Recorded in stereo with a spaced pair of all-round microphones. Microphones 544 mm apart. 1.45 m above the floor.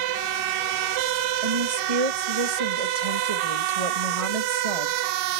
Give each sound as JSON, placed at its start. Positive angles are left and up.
{"t": 1.4, "sound": "a woman speaking", "side_deg": -85, "distance_m": 2.0}